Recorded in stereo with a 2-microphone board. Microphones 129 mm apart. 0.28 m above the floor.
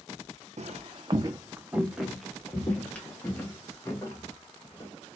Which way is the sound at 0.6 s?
60° right (ahead or behind).